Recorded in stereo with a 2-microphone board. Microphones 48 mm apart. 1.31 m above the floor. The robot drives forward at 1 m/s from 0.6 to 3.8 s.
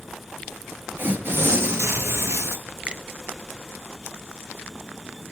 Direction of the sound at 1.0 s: 45° right (ahead or behind).